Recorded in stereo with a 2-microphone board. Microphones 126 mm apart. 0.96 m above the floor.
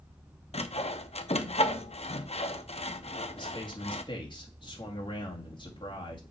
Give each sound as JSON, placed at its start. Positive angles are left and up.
{"t": 0.5, "sound": "sawing", "side_deg": 55, "distance_m": 0.7}
{"t": 3.4, "sound": "a man speaking", "side_deg": 40, "distance_m": 2.0}